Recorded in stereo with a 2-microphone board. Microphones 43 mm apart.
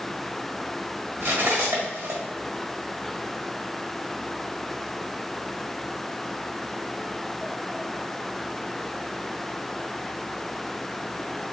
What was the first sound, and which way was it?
Cutlery clinking, 75° right (ahead or behind).